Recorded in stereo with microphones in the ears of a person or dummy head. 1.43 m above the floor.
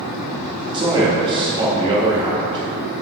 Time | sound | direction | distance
0.7 | a man speaking | 25° right (ahead or behind) | 2.5 m